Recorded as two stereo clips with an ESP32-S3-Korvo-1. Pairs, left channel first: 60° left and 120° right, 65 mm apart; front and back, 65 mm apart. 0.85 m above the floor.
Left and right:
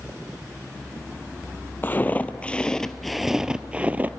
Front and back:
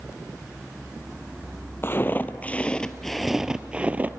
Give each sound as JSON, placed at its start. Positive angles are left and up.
{"t": 1.8, "sound": "footsteps", "azimuth_deg": 20, "distance_m": 1.0}